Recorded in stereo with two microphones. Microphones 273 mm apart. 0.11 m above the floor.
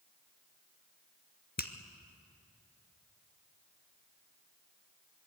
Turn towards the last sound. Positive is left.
turn(degrees=35)  # may be behind; listen again after turning